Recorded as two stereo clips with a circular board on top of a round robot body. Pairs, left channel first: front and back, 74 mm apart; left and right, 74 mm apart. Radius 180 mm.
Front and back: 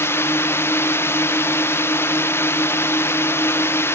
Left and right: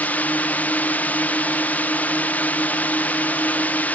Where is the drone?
35° left.